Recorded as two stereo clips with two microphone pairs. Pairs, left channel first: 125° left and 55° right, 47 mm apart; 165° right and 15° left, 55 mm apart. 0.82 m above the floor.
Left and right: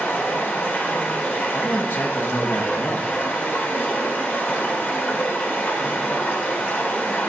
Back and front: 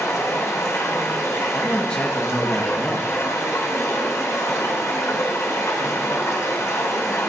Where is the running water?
170° left, 1.5 m.